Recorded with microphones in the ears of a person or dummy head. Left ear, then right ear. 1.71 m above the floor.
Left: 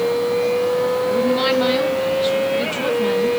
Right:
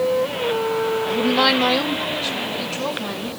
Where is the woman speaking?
10° right (ahead or behind), 1.1 m; by 3.3 s 15° left (ahead or behind), 3 m.